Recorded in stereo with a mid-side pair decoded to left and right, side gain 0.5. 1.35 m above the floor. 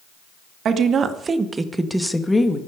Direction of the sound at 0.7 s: 55° right.